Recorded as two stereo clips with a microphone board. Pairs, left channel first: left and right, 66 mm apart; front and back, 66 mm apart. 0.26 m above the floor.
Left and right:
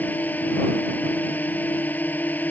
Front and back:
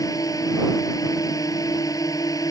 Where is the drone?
25° left.